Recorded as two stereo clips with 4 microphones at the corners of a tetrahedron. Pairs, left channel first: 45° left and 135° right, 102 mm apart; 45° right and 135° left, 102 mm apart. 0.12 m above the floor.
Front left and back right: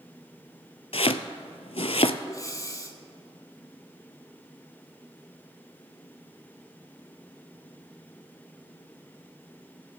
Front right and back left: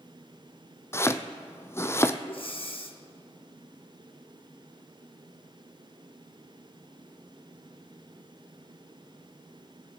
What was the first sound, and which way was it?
Chopping, 20° left.